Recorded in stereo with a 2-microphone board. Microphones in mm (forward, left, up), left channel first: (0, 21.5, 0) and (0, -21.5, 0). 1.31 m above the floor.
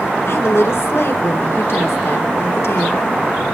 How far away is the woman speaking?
About 1.6 m.